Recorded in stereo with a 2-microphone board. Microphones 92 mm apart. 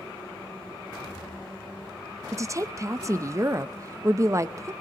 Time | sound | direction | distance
2.3 | a woman speaking | 35° right (ahead or behind) | 0.5 m